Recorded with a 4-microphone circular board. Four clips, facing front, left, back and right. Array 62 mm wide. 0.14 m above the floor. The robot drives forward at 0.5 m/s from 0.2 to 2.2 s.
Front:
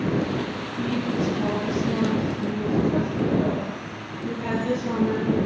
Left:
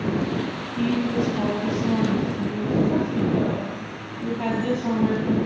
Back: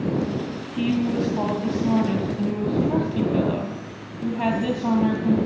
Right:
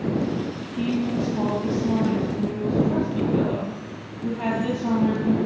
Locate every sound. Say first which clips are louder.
0.8 s a woman speaking: left 1 dB, back 3 dB; 175° right, 2.5 m